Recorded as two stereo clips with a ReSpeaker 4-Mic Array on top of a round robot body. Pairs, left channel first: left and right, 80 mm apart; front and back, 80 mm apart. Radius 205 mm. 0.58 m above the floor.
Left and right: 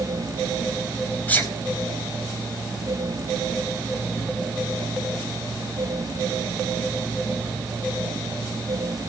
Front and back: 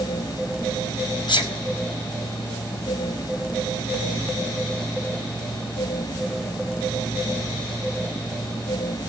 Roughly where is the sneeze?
Ahead.